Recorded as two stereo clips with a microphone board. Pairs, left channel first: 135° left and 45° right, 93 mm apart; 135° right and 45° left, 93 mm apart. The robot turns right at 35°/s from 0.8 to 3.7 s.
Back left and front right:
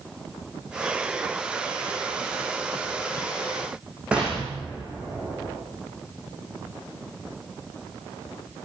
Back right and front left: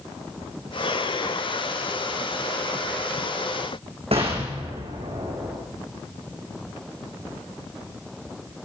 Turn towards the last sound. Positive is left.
turn(degrees=35)